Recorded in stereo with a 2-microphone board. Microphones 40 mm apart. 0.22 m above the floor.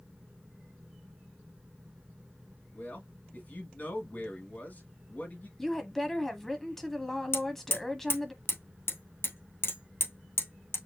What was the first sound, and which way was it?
A man speaking, 45° left (ahead or behind).